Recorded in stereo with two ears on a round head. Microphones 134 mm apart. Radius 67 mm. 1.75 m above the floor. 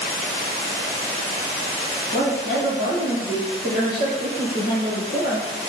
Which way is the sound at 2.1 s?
75° left (ahead or behind).